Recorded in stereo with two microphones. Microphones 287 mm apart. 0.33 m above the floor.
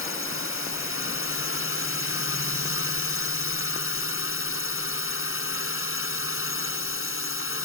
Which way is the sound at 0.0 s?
50° left (ahead or behind).